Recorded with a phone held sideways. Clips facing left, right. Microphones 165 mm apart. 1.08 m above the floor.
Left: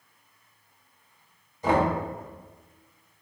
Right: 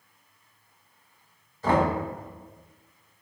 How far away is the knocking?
About 0.7 m.